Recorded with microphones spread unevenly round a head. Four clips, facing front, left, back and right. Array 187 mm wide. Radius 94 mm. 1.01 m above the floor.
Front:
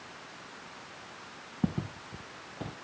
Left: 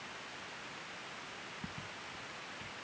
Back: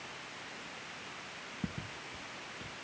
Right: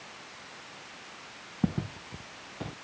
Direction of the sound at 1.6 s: 60° right.